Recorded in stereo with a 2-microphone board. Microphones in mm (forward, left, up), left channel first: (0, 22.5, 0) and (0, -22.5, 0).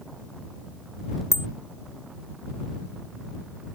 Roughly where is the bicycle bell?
Left.